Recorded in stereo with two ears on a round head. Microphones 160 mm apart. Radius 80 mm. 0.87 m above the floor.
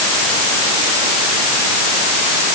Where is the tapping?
No tapping in this recording.